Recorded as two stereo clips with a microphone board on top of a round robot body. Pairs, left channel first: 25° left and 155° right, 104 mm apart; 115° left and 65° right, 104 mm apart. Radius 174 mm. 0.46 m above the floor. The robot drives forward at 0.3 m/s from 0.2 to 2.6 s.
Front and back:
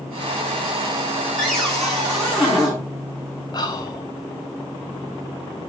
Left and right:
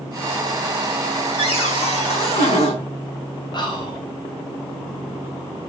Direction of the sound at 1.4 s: 110° left.